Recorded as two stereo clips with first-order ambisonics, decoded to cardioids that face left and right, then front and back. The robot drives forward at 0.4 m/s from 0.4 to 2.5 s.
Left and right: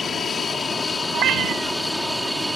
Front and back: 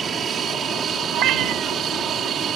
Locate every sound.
0.0 s an aircraft: 145° left; by 2.6 s 175° right
1.1 s a cat meowing: 140° right